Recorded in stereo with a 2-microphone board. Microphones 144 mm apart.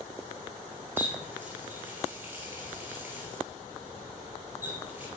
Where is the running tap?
15° right (ahead or behind), 1.5 m.